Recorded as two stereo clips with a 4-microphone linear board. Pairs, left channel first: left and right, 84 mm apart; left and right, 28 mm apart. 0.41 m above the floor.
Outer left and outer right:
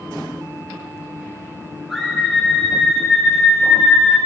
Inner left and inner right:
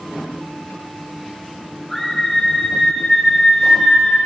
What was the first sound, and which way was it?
A scream, 5° right (ahead or behind).